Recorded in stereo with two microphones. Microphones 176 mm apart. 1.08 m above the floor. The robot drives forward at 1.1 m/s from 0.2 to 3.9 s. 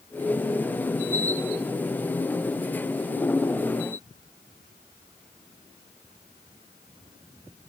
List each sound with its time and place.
Only background noise.